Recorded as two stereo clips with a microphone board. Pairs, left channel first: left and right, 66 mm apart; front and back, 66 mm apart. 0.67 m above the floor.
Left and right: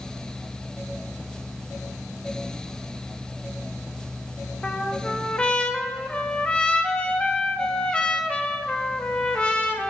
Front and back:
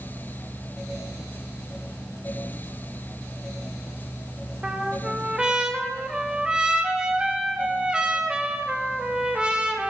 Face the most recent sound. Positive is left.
turn(degrees=130)